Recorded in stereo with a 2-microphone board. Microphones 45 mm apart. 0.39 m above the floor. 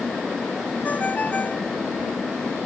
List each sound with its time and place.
0.8 s a ringtone: 35° left (ahead or behind)